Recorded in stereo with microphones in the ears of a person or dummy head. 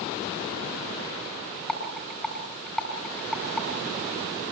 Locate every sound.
1.7 s a rattle: 5° left (ahead or behind), 5.5 m